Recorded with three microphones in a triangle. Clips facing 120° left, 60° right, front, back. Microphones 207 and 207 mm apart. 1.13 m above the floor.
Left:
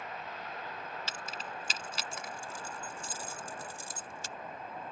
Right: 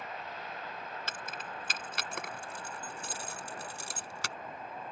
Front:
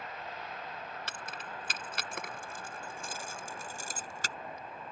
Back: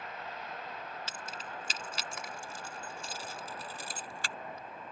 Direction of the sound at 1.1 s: 25° right.